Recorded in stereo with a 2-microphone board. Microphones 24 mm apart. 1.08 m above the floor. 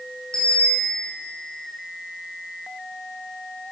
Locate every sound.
0.3 s a bicycle bell: 30° left (ahead or behind), 8 m